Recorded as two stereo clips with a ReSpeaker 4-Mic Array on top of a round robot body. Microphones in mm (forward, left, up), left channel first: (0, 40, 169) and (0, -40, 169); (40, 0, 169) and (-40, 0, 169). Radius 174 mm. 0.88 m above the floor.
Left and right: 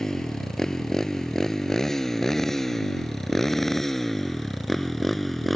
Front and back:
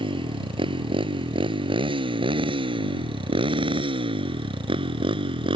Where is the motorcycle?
175° left; by 5.6 s straight behind.